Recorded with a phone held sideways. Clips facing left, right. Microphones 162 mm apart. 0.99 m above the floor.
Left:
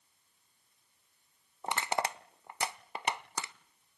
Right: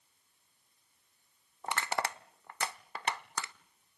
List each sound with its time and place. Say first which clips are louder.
1.6 s crushing: left 2 dB; 20° left (ahead or behind), 0.7 m